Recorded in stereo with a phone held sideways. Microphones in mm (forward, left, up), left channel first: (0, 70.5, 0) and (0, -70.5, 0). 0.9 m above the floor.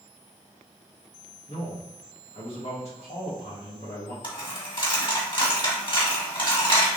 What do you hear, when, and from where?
1.5 s a man speaking: 50° left (ahead or behind), 1.6 m
4.2 s a dropped coin: 40° left (ahead or behind), 1.5 m